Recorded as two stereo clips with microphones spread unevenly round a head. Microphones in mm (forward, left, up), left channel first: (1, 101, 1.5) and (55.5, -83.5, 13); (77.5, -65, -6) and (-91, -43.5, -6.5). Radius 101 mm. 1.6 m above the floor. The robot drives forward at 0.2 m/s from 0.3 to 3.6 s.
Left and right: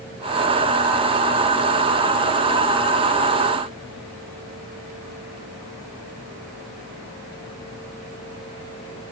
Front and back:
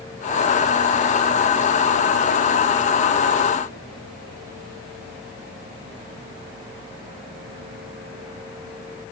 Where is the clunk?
No clunk in this recording.